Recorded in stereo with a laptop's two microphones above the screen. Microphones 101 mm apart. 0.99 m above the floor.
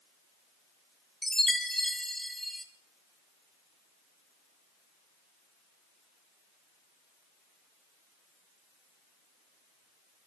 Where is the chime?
Centre (ahead or behind), 1.0 m.